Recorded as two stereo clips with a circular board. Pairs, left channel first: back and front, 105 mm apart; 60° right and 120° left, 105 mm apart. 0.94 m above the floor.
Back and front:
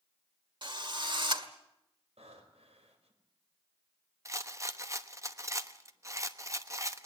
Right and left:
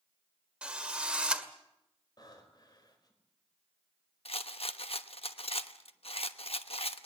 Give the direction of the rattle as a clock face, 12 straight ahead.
2 o'clock.